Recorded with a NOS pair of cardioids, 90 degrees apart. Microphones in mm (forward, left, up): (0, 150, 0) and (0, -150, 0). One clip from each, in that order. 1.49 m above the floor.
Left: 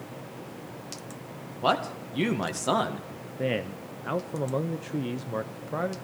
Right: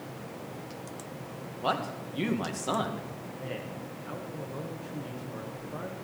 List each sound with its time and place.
1.6 s a man speaking: 30° left, 1.8 m
3.4 s a man speaking: 55° left, 0.7 m